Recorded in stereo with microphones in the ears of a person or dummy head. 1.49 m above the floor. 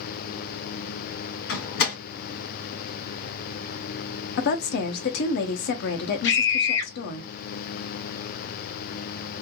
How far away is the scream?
About 1.7 m.